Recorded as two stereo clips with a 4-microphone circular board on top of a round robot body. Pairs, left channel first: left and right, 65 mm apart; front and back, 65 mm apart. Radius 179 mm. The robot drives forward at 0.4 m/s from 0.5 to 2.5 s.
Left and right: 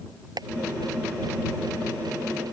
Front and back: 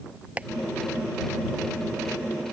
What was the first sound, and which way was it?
Tapping, 110° right.